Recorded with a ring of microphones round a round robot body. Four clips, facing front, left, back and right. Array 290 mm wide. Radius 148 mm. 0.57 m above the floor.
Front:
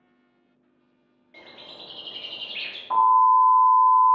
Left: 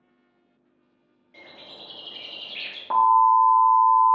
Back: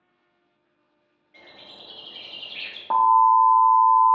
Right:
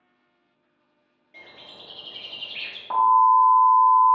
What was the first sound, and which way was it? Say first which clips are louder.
A bird: left 1 dB, front 2 dB; 10° right.